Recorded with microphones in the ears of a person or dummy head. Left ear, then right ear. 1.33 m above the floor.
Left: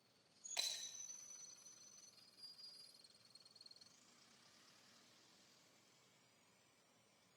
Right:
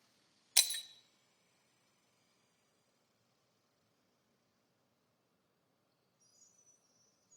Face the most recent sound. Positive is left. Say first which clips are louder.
# right 12 dB
turn(degrees=-45)  # may be behind; listen again after turning